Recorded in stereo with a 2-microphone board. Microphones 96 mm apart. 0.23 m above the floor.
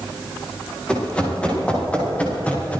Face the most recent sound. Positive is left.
turn(degrees=15)  # may be behind; listen again after turning